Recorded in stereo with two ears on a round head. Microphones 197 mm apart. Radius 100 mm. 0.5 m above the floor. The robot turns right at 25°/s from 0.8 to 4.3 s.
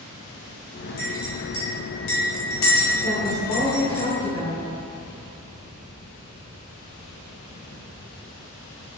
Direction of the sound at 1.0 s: 35° left (ahead or behind).